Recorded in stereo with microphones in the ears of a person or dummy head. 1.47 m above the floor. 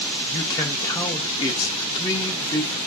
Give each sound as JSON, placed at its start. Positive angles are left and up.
{"t": 0.3, "sound": "a man speaking", "side_deg": 20, "distance_m": 0.8}